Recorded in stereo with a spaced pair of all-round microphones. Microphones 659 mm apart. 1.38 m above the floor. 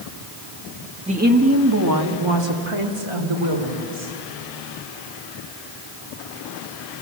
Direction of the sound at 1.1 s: 10° right (ahead or behind).